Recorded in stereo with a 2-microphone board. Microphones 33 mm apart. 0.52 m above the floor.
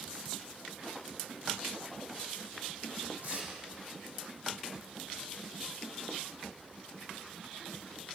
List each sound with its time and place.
3.2 s tearing paper: 50° right (ahead or behind), 7 m